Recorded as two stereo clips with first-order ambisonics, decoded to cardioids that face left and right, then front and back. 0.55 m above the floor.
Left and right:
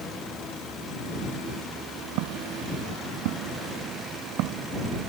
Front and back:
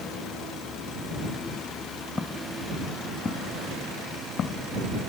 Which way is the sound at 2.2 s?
80° right.